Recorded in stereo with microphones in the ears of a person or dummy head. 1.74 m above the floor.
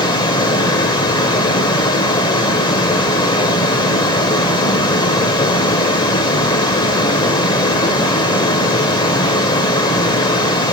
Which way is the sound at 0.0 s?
20° left (ahead or behind).